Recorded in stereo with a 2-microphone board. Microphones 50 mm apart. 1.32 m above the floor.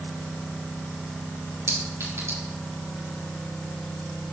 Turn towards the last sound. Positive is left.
turn(degrees=-80)